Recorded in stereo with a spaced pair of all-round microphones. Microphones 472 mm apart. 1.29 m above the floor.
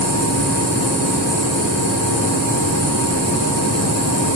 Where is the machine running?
65° left (ahead or behind), 1.5 m.